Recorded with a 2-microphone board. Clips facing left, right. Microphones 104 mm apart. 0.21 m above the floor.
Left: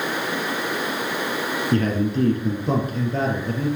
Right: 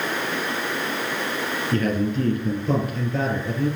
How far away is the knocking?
No knocking in this recording.